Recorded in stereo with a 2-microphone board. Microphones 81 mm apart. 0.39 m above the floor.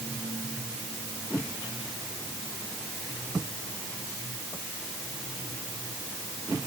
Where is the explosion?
No explosion in this recording.